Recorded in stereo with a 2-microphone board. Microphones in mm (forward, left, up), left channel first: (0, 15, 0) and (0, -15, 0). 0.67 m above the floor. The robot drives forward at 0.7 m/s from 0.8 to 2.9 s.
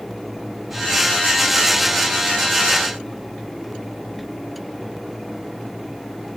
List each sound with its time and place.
Only background noise.